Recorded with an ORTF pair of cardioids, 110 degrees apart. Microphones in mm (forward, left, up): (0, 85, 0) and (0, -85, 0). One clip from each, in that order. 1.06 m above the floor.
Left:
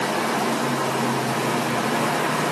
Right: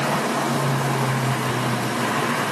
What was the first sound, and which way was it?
Only background noise.